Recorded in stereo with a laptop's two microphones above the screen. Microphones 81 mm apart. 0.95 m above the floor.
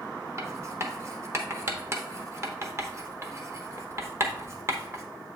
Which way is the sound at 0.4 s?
35° right (ahead or behind).